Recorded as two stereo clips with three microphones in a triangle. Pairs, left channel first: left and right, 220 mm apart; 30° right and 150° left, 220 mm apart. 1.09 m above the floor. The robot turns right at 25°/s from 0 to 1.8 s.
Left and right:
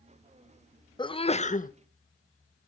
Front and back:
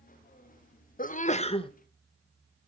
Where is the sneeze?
20° left, 0.7 m; by 1.7 s 35° left, 0.7 m.